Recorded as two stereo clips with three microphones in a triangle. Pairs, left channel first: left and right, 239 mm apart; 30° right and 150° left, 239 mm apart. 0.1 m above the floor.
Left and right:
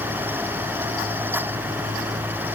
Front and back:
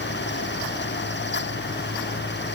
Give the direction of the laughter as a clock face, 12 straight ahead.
No laughter in this recording.